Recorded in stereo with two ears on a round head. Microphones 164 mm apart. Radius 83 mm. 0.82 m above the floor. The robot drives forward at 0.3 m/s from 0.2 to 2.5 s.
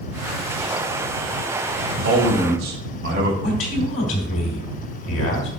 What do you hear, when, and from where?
2.0 s a man speaking: 65° right (ahead or behind), 3 m
3.4 s a man speaking: 70° left (ahead or behind), 1.9 m